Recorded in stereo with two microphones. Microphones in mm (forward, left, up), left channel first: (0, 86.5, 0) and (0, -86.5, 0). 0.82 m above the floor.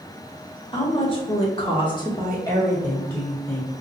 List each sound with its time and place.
0.7 s a woman speaking: 30° left (ahead or behind), 1.5 m; by 3.7 s centre (ahead or behind), 1.8 m